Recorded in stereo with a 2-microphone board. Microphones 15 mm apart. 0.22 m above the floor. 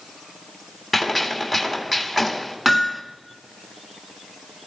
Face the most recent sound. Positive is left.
turn(degrees=-20)  # may be behind; listen again after turning